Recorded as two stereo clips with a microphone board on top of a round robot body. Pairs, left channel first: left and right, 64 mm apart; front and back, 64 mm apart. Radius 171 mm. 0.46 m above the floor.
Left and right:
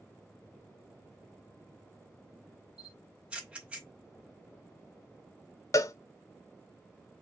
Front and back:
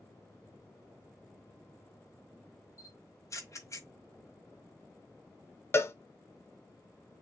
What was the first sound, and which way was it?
A camera shutter, 25° right.